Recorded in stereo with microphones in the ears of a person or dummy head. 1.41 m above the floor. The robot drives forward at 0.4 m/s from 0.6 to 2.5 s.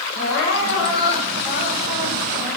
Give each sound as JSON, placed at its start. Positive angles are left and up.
{"t": 0.1, "sound": "crying", "side_deg": 70, "distance_m": 3.0}